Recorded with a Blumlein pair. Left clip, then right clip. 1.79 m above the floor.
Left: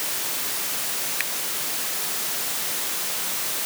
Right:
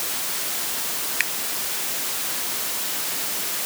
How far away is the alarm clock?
I don't hear an alarm clock.